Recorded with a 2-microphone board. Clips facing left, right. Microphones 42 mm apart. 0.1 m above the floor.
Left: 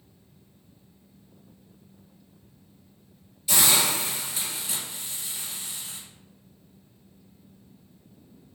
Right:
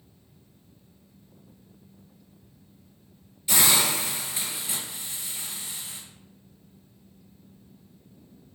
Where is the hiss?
25° right (ahead or behind), 2.0 m.